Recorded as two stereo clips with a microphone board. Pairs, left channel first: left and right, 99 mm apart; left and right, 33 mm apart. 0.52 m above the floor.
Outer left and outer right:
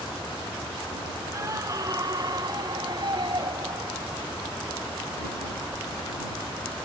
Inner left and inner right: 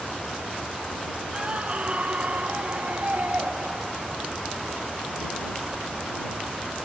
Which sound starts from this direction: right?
A scream, at 1.3 s.